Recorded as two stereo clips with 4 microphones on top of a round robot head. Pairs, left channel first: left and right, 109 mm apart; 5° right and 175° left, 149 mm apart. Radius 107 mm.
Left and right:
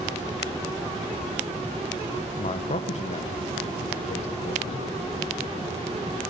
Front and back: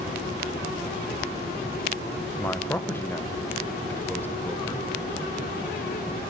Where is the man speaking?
75° left, 1.4 m.